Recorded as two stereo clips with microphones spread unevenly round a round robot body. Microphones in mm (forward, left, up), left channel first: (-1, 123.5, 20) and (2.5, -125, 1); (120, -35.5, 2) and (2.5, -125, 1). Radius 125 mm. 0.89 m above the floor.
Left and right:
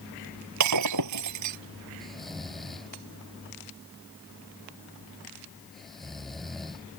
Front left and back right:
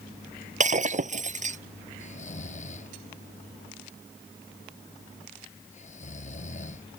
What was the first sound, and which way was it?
Breaking glass, 110° right.